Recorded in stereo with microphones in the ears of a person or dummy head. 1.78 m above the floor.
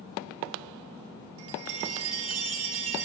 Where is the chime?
65° right (ahead or behind), 2.5 m.